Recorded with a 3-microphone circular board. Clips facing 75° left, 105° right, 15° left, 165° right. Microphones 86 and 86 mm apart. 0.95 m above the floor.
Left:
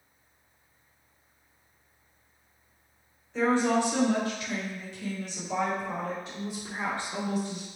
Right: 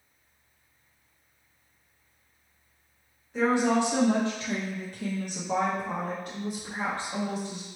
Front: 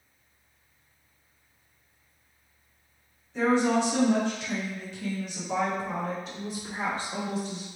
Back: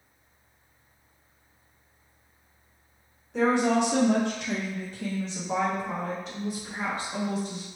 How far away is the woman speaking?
About 1.3 m.